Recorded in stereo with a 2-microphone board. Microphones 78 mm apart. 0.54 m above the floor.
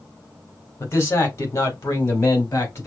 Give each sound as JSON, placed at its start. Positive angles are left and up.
{"t": 0.8, "sound": "a man speaking", "side_deg": 35, "distance_m": 1.6}